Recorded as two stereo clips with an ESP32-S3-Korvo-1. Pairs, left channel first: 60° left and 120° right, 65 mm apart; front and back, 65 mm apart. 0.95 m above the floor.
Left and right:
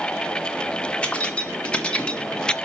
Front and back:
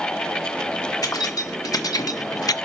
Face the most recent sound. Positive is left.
turn(degrees=-15)